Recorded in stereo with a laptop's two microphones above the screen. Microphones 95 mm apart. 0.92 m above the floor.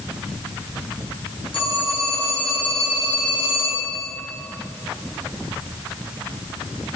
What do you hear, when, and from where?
1.5 s a phone ringing: 65° left (ahead or behind), 7 m